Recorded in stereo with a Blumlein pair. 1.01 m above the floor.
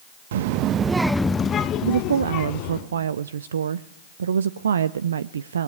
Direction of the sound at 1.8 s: 65° right.